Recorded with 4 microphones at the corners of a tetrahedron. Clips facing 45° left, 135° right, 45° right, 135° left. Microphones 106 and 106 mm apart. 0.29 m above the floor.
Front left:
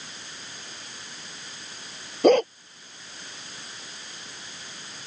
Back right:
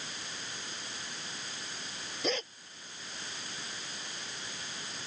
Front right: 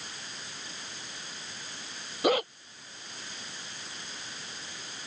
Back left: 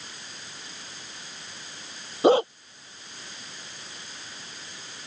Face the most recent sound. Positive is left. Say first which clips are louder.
# front left 18 dB, back left 8 dB
turn(degrees=75)